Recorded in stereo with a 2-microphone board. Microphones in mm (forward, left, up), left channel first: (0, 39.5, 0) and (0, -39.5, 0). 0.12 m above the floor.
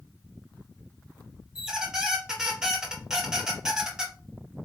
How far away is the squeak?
About 1.3 m.